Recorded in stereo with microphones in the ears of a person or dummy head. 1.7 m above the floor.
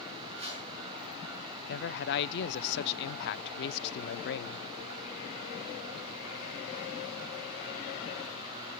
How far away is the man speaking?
About 0.7 m.